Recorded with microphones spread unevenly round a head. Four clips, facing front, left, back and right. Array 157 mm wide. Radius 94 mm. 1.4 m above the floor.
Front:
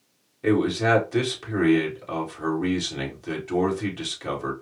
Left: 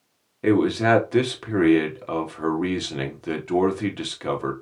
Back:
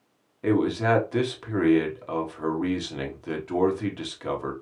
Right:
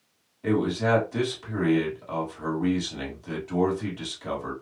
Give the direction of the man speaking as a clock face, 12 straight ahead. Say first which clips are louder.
Left 5 dB, front 1 dB; 9 o'clock.